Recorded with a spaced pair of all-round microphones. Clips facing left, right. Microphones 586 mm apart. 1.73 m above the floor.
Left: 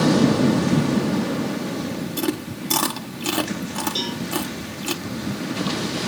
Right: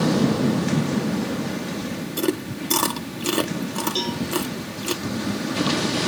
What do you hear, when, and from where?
2.2 s chewing: 15° left (ahead or behind), 0.8 m
4.0 s a cowbell: 50° left (ahead or behind), 3 m